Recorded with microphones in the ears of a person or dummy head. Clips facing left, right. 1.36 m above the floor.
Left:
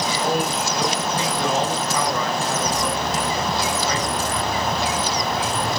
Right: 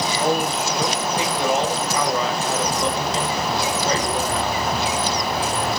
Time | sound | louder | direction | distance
0.2 | a man speaking | right 2 dB | 15° right (ahead or behind) | 8 m